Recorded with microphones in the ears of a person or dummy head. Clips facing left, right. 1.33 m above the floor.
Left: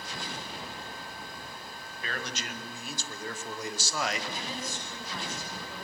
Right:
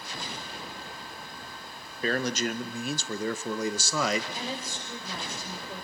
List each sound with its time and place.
2.0 s a man speaking: 35° right (ahead or behind), 1.7 m; by 4.2 s 75° right (ahead or behind), 1.6 m
4.3 s a woman speaking: 25° right (ahead or behind), 6.5 m